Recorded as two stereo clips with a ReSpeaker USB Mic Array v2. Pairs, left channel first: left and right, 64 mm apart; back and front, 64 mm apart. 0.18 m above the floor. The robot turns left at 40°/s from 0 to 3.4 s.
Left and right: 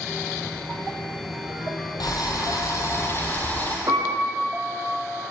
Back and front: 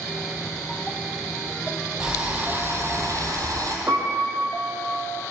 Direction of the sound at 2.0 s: 80° left.